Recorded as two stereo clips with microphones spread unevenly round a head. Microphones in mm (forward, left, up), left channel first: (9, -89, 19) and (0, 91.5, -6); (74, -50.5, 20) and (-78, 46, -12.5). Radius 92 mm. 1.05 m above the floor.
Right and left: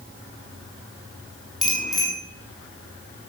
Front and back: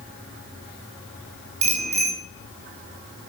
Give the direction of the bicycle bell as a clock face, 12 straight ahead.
6 o'clock.